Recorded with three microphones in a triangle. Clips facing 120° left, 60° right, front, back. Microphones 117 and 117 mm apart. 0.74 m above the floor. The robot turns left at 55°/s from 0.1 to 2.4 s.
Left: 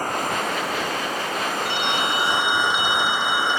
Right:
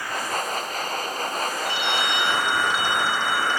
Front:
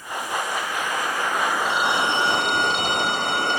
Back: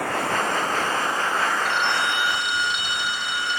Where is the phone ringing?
90° left; by 3.6 s 50° left.